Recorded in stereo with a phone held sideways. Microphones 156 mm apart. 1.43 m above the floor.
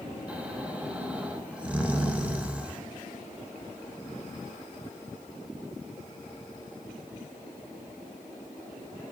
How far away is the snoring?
About 0.7 m.